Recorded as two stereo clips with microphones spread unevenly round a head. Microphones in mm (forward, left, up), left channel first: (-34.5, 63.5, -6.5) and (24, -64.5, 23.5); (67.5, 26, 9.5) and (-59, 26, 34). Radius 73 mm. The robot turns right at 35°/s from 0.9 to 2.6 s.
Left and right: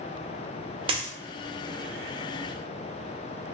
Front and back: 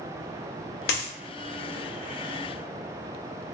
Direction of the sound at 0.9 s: 15° right.